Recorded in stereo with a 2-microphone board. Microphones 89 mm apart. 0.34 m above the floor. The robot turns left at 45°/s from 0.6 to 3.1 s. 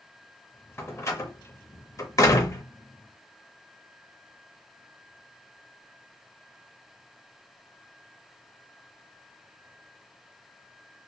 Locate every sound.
0.8 s a door slam: 25° left (ahead or behind), 0.6 m; by 2.6 s 30° left (ahead or behind), 0.6 m